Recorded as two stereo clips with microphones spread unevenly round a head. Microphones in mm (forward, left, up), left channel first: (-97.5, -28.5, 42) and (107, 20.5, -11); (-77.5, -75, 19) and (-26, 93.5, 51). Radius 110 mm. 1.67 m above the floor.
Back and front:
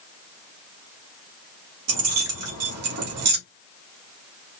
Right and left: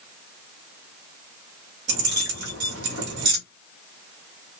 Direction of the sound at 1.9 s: 35° left.